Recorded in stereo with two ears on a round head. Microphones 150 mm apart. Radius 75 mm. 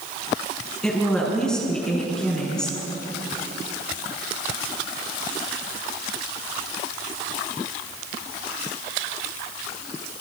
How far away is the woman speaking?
About 6.5 m.